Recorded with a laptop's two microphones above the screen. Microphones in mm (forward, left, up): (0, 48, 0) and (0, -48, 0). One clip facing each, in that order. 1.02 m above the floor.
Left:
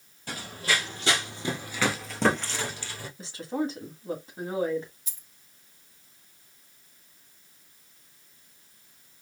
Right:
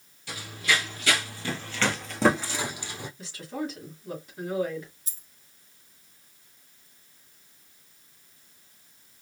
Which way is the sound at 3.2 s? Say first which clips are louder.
Left 5 dB; 30° left (ahead or behind).